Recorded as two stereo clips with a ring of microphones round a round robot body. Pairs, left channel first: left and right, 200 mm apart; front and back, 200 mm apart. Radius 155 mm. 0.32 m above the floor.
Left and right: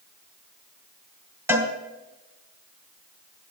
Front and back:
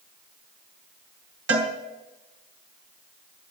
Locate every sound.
1.5 s a cowbell: 165° right, 3.5 m